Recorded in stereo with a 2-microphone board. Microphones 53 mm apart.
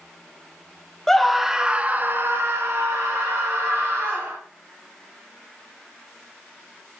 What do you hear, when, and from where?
1.1 s a scream: 10° left (ahead or behind), 0.8 m; by 4.4 s 65° right (ahead or behind), 1.8 m